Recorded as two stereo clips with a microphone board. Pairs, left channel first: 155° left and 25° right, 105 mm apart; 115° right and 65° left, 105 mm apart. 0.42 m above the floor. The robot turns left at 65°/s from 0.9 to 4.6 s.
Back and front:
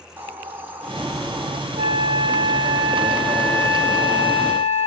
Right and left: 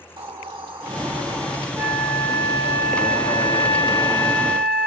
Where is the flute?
10° right, 3.5 m; by 4.9 s 165° left, 3.5 m.